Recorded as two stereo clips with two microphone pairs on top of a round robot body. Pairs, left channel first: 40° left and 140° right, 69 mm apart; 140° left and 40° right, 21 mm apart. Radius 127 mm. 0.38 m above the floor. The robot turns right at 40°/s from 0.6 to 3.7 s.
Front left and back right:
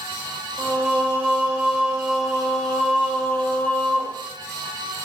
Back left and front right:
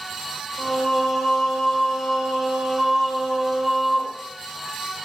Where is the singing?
120° right, 0.9 m; by 4.2 s 5° left, 0.9 m.